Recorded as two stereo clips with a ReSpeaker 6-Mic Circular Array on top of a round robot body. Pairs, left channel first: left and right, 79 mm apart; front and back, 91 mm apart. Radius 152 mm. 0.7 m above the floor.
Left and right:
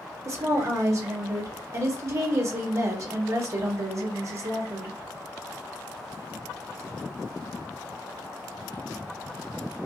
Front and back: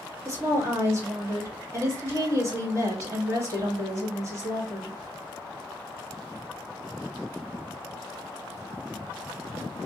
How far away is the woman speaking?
About 1.9 m.